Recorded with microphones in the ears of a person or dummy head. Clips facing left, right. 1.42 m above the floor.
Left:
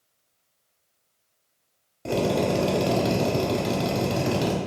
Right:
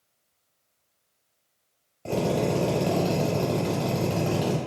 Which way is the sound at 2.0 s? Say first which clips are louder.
Left 2 dB; 20° left (ahead or behind).